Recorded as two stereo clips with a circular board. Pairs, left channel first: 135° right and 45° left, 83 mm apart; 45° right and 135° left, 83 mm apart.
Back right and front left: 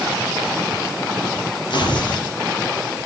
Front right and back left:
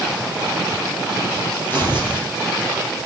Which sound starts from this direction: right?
Tearing paper, at 1.7 s.